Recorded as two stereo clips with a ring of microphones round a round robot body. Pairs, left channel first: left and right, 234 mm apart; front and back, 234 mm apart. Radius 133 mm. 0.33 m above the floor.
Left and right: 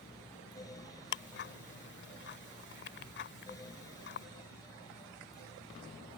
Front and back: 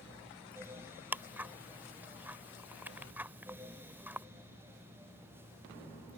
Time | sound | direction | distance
1.1 | ticking | 100° left | ?